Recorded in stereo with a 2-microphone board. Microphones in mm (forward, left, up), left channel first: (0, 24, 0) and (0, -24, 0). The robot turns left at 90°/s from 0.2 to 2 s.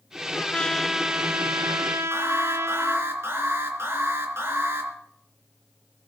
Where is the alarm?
55° right (ahead or behind), 3.5 m.